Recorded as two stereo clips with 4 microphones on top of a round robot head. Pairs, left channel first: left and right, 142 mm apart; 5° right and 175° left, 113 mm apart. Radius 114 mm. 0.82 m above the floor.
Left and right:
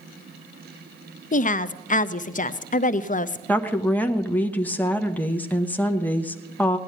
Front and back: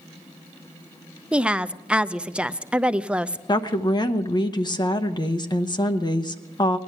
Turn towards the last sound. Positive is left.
turn(degrees=15)